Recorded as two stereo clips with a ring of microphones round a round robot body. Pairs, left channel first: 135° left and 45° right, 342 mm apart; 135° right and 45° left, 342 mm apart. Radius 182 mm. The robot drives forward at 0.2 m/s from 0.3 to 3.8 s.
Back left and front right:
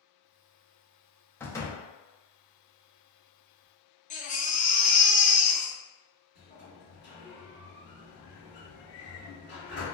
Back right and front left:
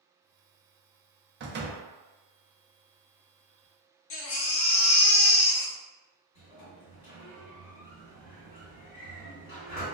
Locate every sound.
1.4 s a door slam: 55° left, 0.6 m; by 1.8 s 70° left, 0.6 m
4.1 s a baby crying: 165° right, 0.6 m
6.3 s a sliding door: 170° right, 2.0 m